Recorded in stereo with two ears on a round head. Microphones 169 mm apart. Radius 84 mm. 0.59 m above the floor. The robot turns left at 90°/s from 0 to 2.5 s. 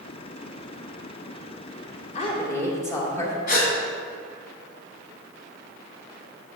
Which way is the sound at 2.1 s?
50° left.